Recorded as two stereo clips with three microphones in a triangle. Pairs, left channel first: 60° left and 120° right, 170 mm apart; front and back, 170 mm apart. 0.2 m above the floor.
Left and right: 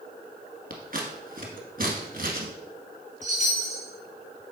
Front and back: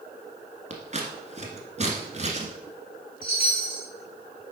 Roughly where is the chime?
Behind.